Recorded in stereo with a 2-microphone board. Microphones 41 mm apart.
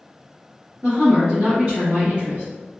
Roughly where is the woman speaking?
Right.